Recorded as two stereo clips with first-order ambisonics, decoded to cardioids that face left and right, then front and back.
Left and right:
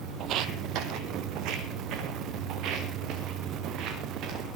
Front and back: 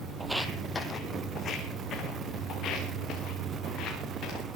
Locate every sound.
0.2 s footsteps: 110° right, 1.1 m; by 4.5 s 45° right, 6 m